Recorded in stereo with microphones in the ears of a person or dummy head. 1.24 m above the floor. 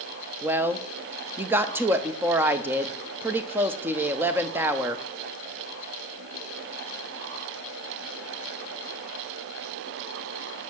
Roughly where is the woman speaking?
Centre.